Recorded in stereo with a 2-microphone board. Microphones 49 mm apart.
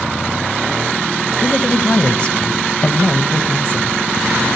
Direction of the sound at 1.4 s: 25° left (ahead or behind).